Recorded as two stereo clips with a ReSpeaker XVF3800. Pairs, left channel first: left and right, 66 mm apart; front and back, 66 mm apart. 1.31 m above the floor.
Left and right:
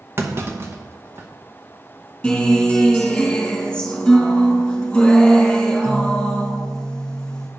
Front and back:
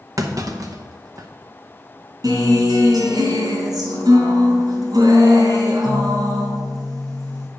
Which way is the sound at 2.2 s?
170° left.